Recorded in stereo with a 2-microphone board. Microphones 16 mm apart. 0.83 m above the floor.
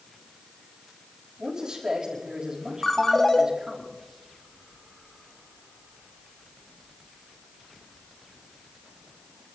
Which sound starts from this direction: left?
A ringtone, at 2.8 s.